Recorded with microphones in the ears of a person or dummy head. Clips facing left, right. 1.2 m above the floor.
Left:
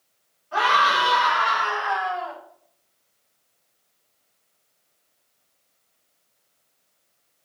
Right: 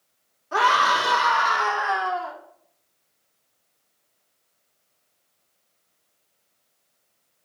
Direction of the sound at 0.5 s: 55° right (ahead or behind).